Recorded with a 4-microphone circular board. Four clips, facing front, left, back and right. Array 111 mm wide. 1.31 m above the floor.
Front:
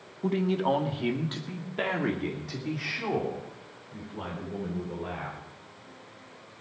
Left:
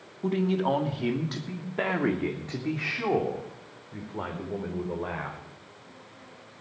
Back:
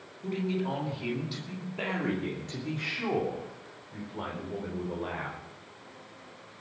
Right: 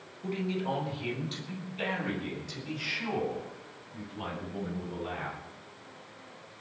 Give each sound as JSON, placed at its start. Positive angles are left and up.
{"t": 0.2, "sound": "a man speaking", "azimuth_deg": 40, "distance_m": 2.0}